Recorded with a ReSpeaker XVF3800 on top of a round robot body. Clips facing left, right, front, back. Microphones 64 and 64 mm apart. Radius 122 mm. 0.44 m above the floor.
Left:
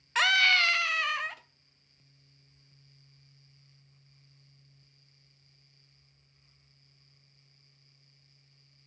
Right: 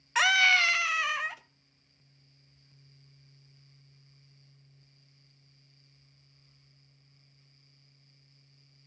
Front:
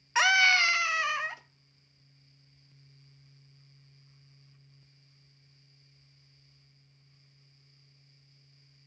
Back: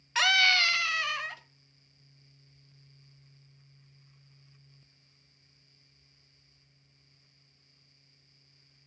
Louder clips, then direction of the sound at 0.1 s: Right 1 dB, front 2 dB; 15° right.